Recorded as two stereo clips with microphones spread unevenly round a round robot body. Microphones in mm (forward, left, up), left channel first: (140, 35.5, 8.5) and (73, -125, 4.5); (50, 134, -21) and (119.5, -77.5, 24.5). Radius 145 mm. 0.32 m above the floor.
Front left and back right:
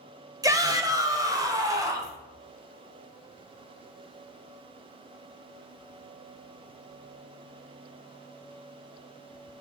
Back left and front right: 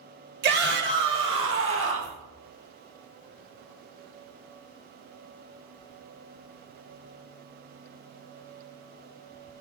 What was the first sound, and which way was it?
A shout, 60° right.